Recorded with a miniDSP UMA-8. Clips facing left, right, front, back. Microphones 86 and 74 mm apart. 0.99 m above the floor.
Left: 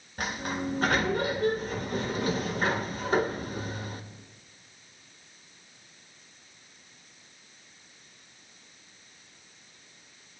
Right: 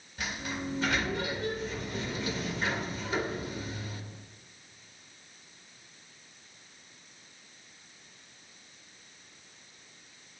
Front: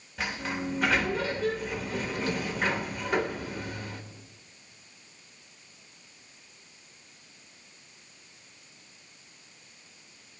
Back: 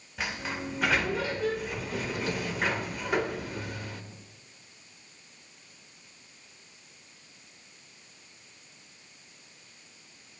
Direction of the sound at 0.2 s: 90° left.